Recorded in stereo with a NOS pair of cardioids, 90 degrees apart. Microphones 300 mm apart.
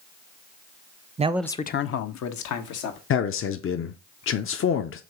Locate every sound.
1.2 s a man speaking: 25° right, 0.7 m; by 3.0 s 80° left, 1.9 m
3.1 s a man speaking: 45° left, 0.8 m